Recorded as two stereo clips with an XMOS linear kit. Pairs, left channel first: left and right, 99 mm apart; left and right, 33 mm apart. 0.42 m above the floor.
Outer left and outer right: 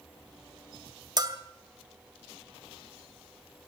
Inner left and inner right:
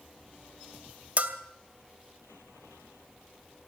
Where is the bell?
40° right (ahead or behind), 2 m.